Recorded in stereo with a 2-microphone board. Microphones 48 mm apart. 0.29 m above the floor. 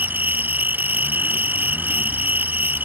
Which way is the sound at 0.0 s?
45° right (ahead or behind).